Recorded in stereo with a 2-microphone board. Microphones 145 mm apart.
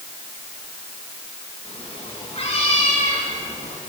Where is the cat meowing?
40° left (ahead or behind), 9.5 m; by 3.8 s 50° left (ahead or behind), 7.5 m.